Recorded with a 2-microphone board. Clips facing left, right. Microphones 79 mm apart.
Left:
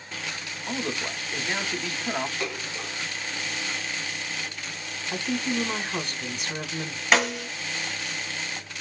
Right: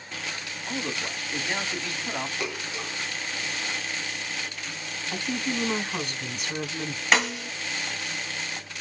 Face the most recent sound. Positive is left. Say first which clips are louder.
# left 2 dB
turn(degrees=0)  # may be behind; listen again after turning